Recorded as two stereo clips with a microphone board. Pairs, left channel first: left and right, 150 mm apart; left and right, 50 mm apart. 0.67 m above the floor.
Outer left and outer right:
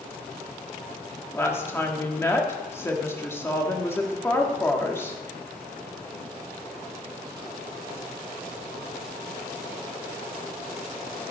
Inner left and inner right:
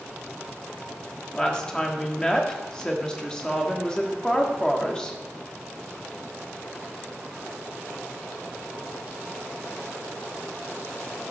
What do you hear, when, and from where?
1.3 s a woman speaking: 15° left (ahead or behind), 1.4 m